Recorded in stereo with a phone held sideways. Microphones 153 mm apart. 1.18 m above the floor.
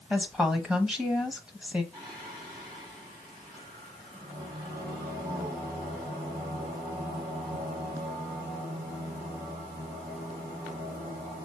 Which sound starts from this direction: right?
Singing, at 1.9 s.